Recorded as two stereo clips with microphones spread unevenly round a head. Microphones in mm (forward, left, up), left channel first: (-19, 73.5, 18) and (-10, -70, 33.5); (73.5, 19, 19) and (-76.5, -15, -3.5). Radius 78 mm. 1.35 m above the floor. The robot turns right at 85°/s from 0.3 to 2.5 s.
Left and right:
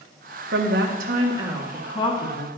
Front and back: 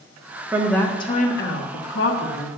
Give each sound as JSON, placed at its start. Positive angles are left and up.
{"t": 0.5, "sound": "a woman speaking", "azimuth_deg": -95, "distance_m": 1.5}